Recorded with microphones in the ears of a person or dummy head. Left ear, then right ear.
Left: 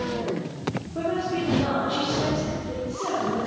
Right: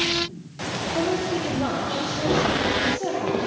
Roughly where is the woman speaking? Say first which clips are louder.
Right 1 dB; right.